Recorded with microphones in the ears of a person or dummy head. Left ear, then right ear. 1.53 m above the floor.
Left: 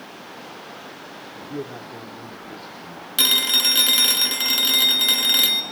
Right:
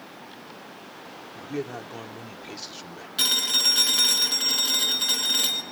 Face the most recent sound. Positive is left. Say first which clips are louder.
# left 4 dB
turn(degrees=15)  # may be behind; listen again after turning